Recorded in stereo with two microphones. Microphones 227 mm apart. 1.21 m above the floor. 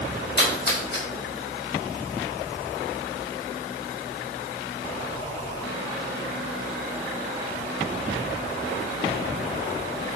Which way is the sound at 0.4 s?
50° left (ahead or behind).